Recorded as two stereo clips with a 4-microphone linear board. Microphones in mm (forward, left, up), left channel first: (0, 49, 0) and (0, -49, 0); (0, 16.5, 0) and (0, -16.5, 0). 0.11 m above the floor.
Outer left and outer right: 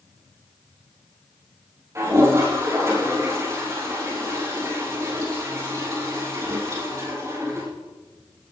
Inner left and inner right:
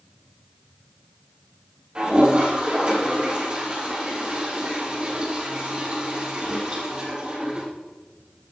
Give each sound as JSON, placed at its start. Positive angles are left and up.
{"t": 1.9, "sound": "a toilet flushing", "side_deg": -30, "distance_m": 4.5}